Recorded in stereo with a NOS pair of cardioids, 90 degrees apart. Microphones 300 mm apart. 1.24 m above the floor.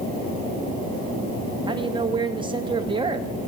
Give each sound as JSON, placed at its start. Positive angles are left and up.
{"t": 1.7, "sound": "a man speaking", "azimuth_deg": -15, "distance_m": 1.8}